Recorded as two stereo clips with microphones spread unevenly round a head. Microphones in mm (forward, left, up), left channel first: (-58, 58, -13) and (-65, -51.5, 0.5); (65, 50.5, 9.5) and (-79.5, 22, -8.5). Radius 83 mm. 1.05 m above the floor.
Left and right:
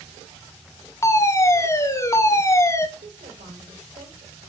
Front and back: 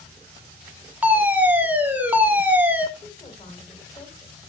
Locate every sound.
1.0 s a fire alarm: 125° left, 1.4 m
3.0 s a woman speaking: 60° right, 4 m